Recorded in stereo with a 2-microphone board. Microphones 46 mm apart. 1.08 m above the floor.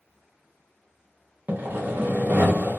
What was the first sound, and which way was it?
Sawing, 35° right (ahead or behind).